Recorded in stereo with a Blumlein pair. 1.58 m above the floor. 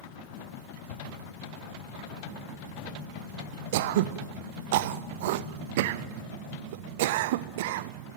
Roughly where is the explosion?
Ahead left.